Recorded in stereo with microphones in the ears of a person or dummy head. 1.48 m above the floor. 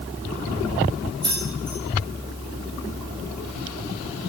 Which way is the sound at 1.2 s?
25° right (ahead or behind).